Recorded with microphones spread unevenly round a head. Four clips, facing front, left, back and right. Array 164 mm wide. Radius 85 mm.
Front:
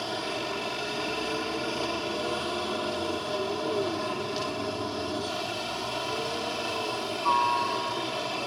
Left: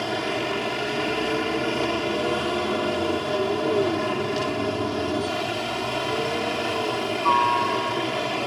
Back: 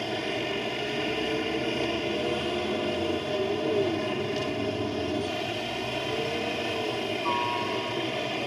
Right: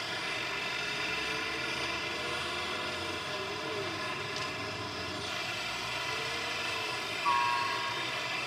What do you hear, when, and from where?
0.0 s a helicopter: 110° left